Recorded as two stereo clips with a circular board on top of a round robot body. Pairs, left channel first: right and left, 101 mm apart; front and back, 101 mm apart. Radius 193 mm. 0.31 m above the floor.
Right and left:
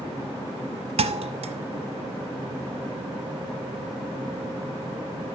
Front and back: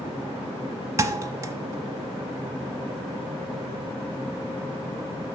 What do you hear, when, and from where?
1.0 s a thud: 115° left, 0.9 m